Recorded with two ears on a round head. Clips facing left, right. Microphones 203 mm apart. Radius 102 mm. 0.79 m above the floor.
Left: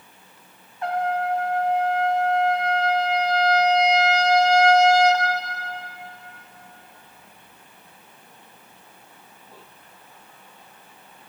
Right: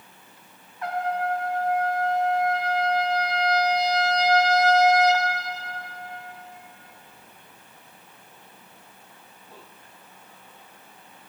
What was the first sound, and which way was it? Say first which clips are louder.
A trumpet: left 3 dB; 25° left (ahead or behind).